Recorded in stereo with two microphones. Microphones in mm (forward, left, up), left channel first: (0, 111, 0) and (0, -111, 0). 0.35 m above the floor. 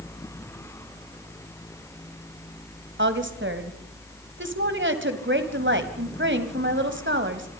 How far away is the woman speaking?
About 2 m.